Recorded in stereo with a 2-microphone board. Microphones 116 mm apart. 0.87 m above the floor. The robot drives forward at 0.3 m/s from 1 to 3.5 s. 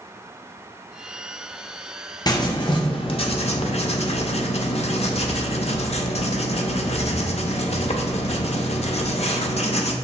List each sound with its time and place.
2.3 s writing: 35° left (ahead or behind), 0.7 m; by 9.9 s 60° left (ahead or behind), 0.5 m